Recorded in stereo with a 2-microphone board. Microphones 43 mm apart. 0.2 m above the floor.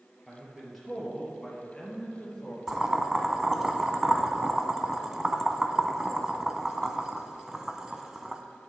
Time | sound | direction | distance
0.3 | a man speaking | 5° right (ahead or behind) | 3 m
2.7 | boiling | 15° right (ahead or behind) | 0.8 m